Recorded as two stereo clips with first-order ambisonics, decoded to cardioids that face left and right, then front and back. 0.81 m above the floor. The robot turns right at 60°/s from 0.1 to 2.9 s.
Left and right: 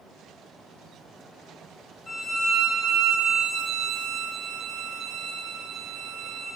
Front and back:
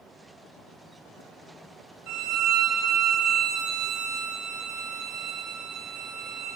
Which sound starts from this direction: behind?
A violin, at 2.1 s.